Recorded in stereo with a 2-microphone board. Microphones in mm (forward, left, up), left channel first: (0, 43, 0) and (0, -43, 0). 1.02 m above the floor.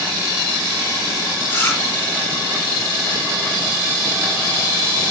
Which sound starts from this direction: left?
Chewing, at 1.5 s.